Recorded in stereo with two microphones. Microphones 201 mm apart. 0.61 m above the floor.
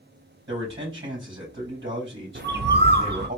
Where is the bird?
55° right (ahead or behind), 0.5 m.